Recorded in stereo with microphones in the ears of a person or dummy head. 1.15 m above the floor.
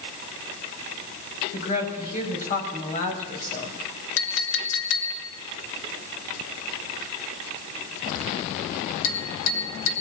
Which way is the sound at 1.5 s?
40° left (ahead or behind).